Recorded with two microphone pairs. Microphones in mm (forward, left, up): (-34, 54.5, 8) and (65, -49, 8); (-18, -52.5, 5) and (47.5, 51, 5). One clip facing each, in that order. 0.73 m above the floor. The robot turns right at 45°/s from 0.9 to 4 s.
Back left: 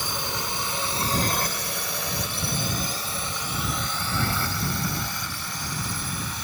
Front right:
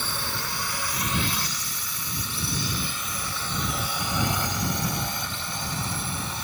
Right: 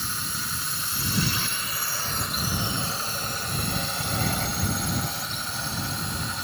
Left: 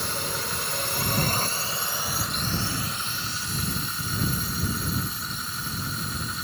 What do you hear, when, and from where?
0.0 s a drone: 60° left; by 6.5 s 110° right